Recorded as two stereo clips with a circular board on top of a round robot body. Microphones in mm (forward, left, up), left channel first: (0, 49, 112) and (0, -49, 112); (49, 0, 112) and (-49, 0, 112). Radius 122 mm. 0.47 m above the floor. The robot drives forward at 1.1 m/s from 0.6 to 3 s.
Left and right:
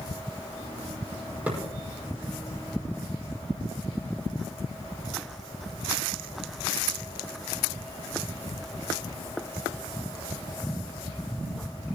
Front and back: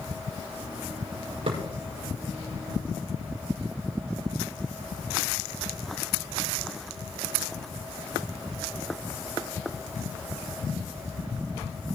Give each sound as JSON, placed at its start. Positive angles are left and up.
{"t": 1.5, "sound": "a thud", "azimuth_deg": -165, "distance_m": 5.5}